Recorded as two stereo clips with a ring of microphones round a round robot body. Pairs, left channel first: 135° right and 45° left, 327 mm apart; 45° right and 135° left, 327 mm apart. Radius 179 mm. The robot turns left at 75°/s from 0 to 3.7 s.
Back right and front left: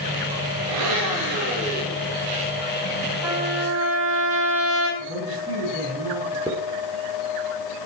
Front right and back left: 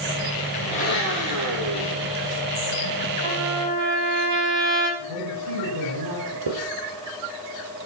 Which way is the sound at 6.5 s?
130° left.